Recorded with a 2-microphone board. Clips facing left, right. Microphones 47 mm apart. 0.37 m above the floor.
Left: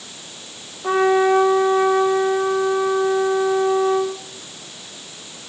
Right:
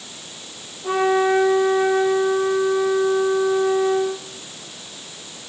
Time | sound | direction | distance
0.8 | a trumpet | 75° left (ahead or behind) | 5 m